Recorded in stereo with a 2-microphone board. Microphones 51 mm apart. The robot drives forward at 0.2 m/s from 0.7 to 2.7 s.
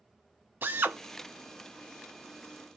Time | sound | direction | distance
0.6 | a drill | 45° right (ahead or behind) | 0.7 m